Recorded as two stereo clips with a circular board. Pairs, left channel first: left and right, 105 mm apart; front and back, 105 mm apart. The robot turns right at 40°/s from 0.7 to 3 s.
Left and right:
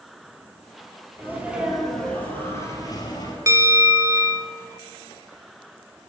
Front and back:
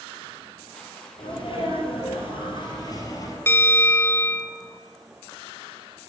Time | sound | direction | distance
1.2 | a sneeze | 25° right | 2.5 m
3.5 | a bell | 55° right | 0.6 m